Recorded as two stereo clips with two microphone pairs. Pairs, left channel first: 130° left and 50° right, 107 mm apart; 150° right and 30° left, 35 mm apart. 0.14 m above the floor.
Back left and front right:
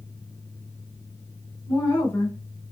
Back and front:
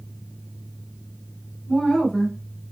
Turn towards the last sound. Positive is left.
turn(degrees=105)